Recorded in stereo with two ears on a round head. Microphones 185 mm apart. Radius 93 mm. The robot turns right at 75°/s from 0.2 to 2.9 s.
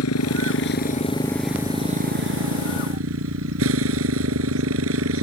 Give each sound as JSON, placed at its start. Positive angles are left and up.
{"t": 0.0, "sound": "a motorcycle", "azimuth_deg": 85}